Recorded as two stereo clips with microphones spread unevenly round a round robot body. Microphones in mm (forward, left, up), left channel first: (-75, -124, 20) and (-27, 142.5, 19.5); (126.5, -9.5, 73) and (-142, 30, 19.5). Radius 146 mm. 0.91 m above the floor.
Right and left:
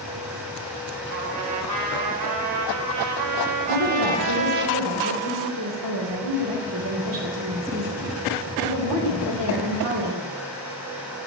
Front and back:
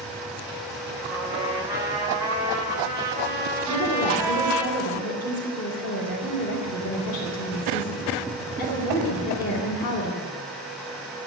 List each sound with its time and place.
1.1 s a trumpet: 90° left, 3 m
3.6 s a woman speaking: 55° left, 3 m